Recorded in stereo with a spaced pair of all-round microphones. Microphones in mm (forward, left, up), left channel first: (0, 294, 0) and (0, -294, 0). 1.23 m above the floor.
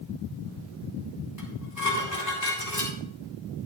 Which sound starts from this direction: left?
Dishes clattering, at 1.4 s.